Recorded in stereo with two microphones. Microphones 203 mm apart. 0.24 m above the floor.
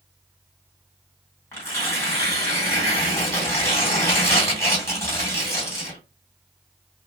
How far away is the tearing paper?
About 2.0 m.